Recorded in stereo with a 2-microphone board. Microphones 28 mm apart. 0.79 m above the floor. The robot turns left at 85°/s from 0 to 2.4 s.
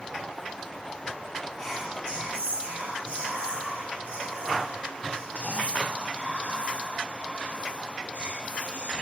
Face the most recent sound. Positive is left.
turn(degrees=-65)